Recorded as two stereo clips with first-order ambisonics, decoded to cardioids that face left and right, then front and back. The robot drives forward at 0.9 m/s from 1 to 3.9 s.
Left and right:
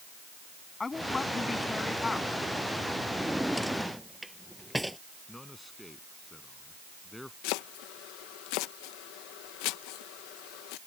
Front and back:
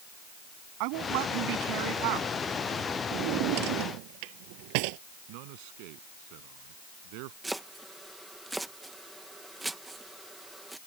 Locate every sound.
0.8 s a woman speaking: 170° left
3.1 s a drawer: straight behind
5.3 s a man speaking: 175° left
7.4 s chopping: 95° left